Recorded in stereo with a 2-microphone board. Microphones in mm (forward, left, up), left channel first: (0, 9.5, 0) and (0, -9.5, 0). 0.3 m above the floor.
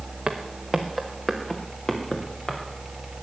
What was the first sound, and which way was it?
Footsteps, 20° right (ahead or behind).